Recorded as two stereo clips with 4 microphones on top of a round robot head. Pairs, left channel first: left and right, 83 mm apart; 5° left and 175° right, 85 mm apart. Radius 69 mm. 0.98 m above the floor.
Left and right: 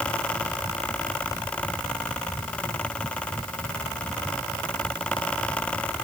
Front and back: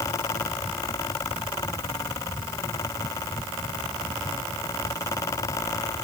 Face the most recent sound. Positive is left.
No sound to turn to.